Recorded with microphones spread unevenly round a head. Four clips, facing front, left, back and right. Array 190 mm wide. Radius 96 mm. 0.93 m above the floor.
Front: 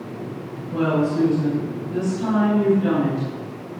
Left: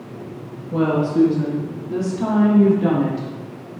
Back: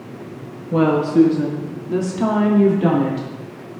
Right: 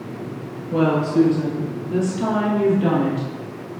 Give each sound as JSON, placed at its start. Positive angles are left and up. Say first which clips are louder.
{"t": 0.7, "sound": "a woman speaking", "louder": "right 1 dB, back 6 dB", "azimuth_deg": -165, "distance_m": 1.5}